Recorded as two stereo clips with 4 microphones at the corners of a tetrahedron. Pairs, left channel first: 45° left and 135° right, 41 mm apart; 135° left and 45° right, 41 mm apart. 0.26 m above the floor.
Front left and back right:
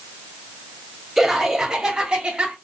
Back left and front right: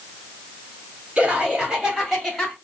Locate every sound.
1.2 s laughter: 55° right, 1.4 m; by 2.5 s 140° right, 1.4 m